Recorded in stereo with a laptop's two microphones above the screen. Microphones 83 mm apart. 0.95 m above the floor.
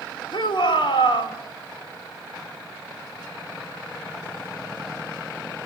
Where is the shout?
75° left (ahead or behind), 3 m.